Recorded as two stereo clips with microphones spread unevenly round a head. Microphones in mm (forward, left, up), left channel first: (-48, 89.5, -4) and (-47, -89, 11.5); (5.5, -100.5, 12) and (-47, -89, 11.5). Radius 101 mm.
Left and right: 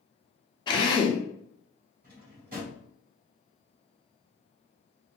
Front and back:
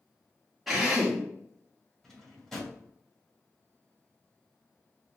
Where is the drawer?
95° right, 1.6 m.